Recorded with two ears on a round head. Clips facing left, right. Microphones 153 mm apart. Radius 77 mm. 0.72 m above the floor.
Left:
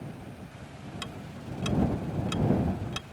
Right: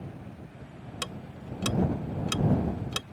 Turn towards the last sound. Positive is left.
turn(degrees=-55)  # may be behind; listen again after turning